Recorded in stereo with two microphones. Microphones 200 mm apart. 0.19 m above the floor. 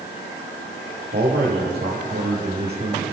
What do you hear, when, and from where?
1.1 s a man speaking: 60° right (ahead or behind), 5 m